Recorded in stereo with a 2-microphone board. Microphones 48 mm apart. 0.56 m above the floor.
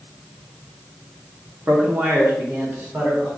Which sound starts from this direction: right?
A man speaking, at 1.7 s.